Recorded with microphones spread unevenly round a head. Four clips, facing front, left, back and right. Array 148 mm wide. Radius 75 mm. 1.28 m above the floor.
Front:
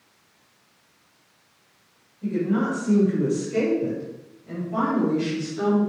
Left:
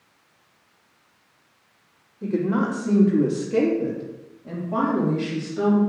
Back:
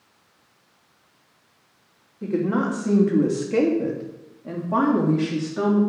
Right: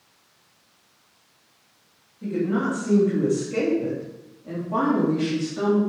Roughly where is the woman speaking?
Behind left.